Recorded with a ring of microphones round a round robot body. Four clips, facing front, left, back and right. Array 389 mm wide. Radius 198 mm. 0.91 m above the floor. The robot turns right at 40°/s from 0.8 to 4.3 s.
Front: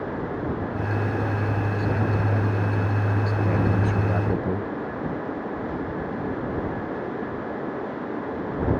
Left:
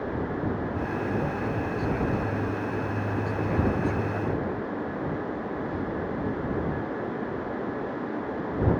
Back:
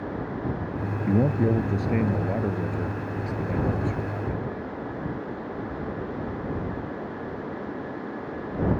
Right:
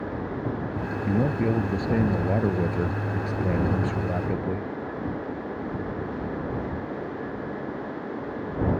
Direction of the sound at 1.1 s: 160° right.